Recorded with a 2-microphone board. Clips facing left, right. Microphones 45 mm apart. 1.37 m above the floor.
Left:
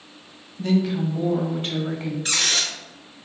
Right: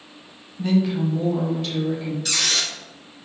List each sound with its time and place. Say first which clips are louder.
0.6 s a woman speaking: right 1 dB; 10° right (ahead or behind), 0.8 m; by 2.1 s 60° left (ahead or behind), 0.8 m
2.2 s a squeak: left 1 dB; 30° left (ahead or behind), 1.0 m